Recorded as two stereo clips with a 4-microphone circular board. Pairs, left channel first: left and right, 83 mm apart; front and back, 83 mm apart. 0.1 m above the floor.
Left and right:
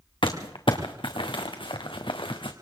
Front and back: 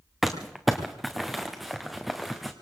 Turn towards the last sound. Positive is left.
turn(degrees=90)